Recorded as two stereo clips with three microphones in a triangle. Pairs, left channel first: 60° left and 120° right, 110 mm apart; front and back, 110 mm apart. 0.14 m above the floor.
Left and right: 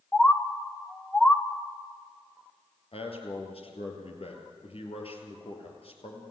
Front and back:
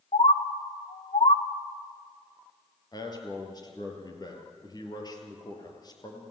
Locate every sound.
0.1 s a bird: 20° right, 1.4 m
2.9 s a man speaking: 45° left, 3.5 m